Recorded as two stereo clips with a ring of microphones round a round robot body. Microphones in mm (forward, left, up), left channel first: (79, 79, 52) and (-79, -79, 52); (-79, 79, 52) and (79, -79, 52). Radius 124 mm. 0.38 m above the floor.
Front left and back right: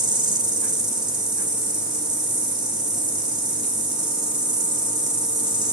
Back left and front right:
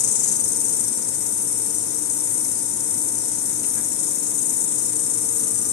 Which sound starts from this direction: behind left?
An insect, at 0.0 s.